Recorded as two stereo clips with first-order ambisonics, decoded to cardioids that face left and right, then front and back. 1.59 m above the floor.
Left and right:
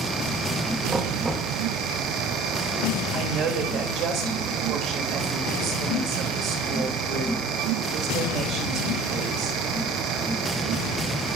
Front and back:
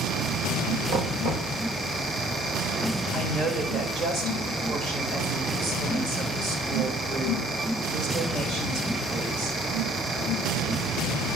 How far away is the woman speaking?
About 2.5 m.